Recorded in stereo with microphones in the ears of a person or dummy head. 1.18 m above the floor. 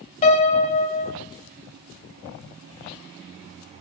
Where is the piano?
50° left (ahead or behind), 2.5 m.